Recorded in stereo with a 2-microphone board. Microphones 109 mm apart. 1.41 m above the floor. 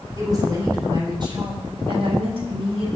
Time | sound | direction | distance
0.2 | a woman speaking | 35° right (ahead or behind) | 4.5 m